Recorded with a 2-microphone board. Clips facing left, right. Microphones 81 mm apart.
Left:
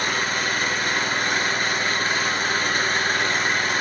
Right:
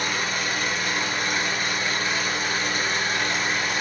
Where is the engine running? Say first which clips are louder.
Left 3 dB; 45° left (ahead or behind), 3.5 m.